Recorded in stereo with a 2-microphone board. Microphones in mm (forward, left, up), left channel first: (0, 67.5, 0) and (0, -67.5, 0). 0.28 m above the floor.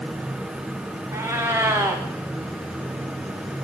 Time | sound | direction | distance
1.1 | a cat meowing | 20° right (ahead or behind) | 4.5 m